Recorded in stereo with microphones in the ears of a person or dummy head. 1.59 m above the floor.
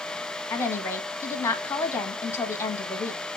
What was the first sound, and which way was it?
A woman speaking, 15° left (ahead or behind).